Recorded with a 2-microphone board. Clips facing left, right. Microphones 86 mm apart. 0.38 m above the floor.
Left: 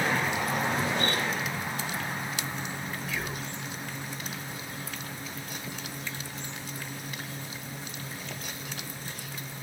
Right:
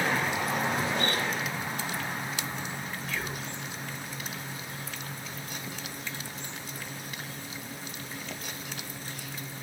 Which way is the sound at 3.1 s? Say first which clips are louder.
Right 1 dB; centre (ahead or behind).